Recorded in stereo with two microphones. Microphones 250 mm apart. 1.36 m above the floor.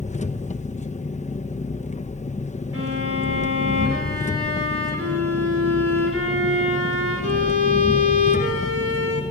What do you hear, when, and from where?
0.0 s an engine running: 30° left (ahead or behind), 1.0 m
2.7 s a violin: 60° right (ahead or behind), 5.5 m